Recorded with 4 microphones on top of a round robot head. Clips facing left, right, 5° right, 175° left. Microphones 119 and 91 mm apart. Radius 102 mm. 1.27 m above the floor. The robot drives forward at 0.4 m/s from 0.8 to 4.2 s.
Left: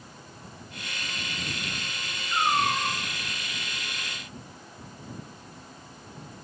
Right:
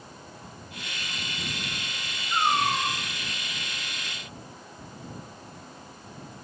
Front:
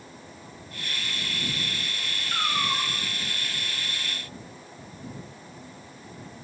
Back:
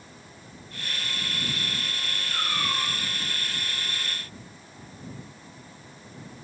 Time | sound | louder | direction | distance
2.3 | a cat meowing | right 1 dB, front 3 dB | 55° right | 3 m